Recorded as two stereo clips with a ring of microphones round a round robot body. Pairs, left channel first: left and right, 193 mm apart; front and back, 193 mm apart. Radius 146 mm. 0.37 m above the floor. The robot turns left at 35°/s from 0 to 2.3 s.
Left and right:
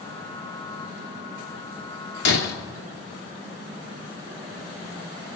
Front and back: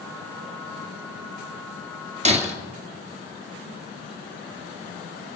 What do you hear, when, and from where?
2.2 s breaking glass: 125° left, 2.5 m